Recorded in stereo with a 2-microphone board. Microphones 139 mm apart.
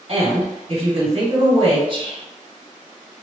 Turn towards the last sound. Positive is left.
turn(degrees=-40)  # may be behind; listen again after turning